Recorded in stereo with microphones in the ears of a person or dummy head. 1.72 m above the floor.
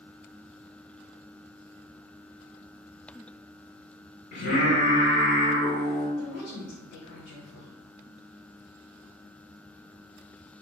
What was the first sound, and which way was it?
Singing, 50° left (ahead or behind).